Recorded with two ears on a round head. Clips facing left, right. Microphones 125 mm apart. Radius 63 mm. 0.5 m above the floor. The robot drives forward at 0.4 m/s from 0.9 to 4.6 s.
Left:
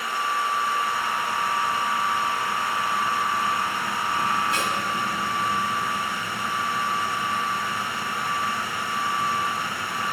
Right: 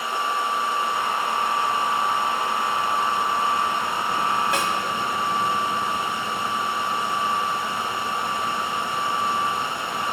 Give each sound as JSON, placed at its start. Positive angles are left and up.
{"t": 4.5, "sound": "a snare drum", "side_deg": -60, "distance_m": 2.5}